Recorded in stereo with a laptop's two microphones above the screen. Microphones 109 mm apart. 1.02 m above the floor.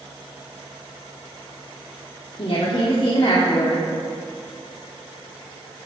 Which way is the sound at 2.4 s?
60° left (ahead or behind).